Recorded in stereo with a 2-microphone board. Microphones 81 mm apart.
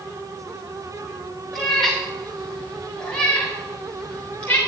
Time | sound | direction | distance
1.5 | a cat meowing | 5° left (ahead or behind) | 5 m